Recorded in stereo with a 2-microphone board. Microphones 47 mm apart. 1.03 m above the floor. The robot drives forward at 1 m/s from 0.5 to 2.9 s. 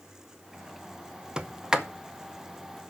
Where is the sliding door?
20° right (ahead or behind), 0.7 m; by 2.9 s 5° right (ahead or behind), 1.9 m.